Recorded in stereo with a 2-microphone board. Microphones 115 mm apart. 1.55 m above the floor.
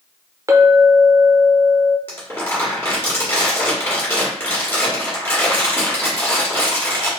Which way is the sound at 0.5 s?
30° right (ahead or behind).